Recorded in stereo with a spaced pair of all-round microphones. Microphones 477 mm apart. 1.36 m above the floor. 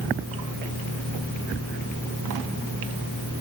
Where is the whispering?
No whispering in this recording.